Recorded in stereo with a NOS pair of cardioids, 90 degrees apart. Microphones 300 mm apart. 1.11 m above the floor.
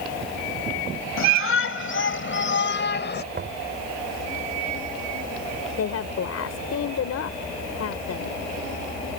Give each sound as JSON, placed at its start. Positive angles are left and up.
{"t": 1.2, "sound": "a shout", "azimuth_deg": 45}
{"t": 3.3, "sound": "knocking", "azimuth_deg": -35}
{"t": 5.8, "sound": "a woman speaking", "azimuth_deg": 55}